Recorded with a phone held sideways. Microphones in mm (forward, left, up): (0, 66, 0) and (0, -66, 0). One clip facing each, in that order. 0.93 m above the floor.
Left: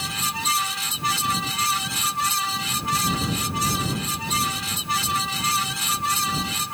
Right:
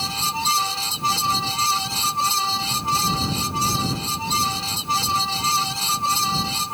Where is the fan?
30° right (ahead or behind).